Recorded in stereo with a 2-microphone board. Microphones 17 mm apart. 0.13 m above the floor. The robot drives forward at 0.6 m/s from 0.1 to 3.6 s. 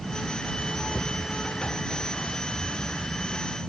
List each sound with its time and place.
0.9 s a cupboard door: 80° left